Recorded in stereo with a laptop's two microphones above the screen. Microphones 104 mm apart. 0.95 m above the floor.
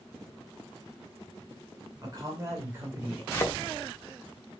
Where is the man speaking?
40° right (ahead or behind), 3 m; by 3.2 s 15° right (ahead or behind), 2.5 m.